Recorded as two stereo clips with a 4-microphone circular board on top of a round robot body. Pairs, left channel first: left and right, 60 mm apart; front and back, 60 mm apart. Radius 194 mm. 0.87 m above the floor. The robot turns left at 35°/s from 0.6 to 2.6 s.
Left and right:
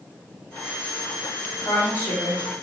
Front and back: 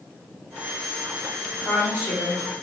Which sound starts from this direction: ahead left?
A woman speaking, at 1.6 s.